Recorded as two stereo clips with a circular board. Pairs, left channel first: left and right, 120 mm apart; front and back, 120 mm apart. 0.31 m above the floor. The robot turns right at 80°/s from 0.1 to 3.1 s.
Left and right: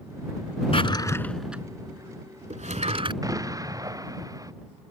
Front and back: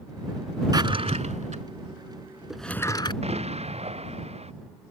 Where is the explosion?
150° right.